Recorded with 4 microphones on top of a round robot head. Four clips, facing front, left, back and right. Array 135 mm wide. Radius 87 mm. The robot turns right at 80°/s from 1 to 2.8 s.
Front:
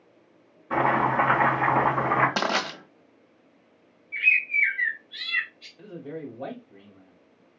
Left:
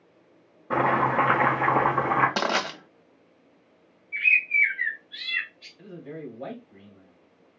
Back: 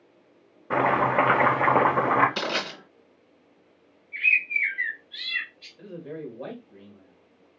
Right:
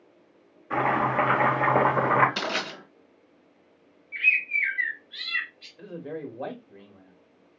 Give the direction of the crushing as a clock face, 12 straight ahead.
11 o'clock.